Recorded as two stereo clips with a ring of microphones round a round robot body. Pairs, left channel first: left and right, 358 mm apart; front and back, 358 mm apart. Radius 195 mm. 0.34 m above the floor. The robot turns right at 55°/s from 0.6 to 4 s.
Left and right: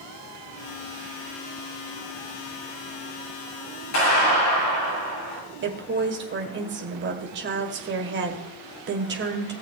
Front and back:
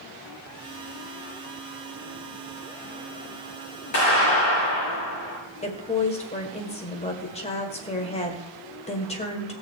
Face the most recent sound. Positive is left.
turn(degrees=-60)